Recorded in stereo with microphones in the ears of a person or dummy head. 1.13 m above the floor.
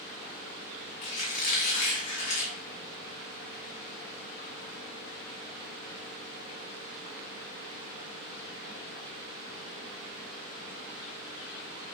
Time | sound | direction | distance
1.0 | a squeak | 40° left (ahead or behind) | 1.0 m